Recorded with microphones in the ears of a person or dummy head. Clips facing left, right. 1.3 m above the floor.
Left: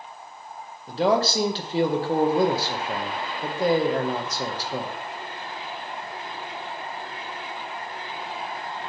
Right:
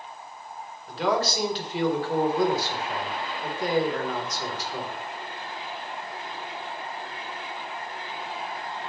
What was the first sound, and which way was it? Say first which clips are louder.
A man speaking: left 4 dB; 30° left (ahead or behind).